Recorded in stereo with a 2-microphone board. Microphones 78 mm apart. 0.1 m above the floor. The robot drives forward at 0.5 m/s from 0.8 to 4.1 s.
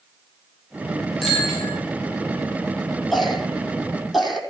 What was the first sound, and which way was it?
A bicycle bell, 5° left (ahead or behind).